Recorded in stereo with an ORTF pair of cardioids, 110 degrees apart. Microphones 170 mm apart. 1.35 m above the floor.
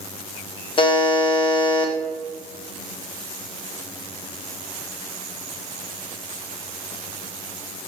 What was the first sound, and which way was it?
A buzzer, 30° left.